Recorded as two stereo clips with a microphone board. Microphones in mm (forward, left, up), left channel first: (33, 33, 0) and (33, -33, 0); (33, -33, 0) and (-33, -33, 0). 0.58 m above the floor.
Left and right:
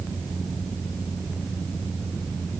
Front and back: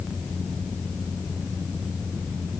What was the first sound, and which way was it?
Only background noise.